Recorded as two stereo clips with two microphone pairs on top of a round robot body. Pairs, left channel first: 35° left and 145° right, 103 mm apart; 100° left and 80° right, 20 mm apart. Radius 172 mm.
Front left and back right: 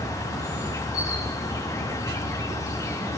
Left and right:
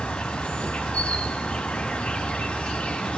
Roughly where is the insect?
Left.